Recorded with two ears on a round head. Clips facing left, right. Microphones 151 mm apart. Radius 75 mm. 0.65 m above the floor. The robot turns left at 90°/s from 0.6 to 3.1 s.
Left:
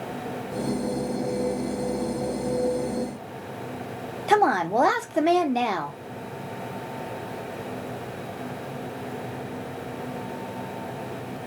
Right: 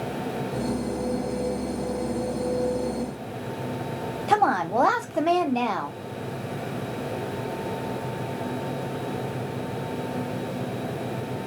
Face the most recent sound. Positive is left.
turn(degrees=10)  # may be behind; listen again after turning